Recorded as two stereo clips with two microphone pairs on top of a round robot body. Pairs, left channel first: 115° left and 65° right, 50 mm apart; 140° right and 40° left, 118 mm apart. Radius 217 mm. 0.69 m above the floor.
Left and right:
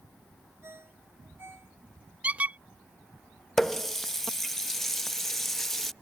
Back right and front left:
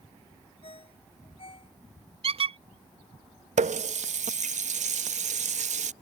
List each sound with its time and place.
0.6 s a ringtone: 100° right
2.2 s a squeak: straight ahead
3.6 s a running tap: 30° left